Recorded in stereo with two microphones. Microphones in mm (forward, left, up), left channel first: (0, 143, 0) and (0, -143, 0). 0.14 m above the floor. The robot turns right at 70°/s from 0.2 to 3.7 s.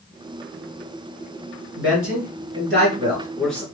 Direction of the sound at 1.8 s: 40° right (ahead or behind).